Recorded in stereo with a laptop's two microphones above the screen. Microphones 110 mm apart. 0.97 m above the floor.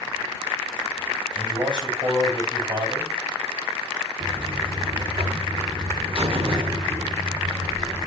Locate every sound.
1.4 s a man speaking: 45° right (ahead or behind), 6.5 m
4.2 s a buzzer: 60° right (ahead or behind), 1.4 m